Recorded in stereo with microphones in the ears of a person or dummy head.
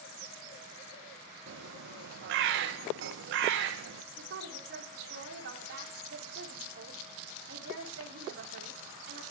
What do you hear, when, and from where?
1.5 s a bird: 75° right (ahead or behind), 0.8 m
4.1 s a woman speaking: 70° right (ahead or behind), 4.5 m